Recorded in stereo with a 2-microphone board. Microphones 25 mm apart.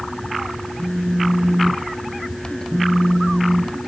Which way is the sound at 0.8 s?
15° left (ahead or behind).